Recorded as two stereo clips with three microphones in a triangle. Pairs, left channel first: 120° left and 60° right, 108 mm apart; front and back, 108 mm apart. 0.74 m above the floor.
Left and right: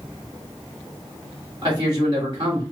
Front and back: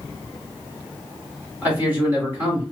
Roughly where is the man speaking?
Right.